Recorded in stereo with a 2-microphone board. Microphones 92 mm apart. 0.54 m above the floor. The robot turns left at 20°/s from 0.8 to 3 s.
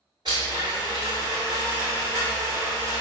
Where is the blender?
100° right, 1.7 m; by 3.0 s 145° right, 1.7 m.